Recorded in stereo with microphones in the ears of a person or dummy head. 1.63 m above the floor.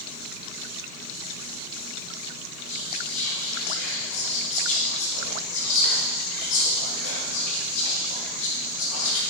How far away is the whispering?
About 2 m.